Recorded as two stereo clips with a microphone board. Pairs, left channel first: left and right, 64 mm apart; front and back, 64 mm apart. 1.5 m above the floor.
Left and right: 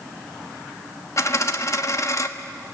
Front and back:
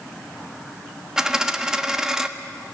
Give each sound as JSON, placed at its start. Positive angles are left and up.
{"t": 1.2, "sound": "a dropped coin", "azimuth_deg": 100, "distance_m": 1.2}